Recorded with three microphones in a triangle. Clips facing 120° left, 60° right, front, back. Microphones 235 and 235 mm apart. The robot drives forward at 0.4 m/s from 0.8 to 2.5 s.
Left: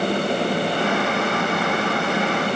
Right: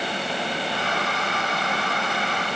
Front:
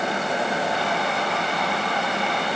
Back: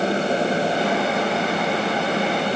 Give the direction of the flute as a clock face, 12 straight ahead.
I don't hear a flute.